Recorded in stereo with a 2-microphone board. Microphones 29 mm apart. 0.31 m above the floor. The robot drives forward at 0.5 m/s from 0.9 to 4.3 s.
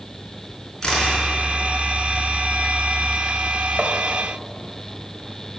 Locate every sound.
0.8 s a camera shutter: 20° left (ahead or behind), 4 m
3.8 s tapping: 40° right (ahead or behind), 1.2 m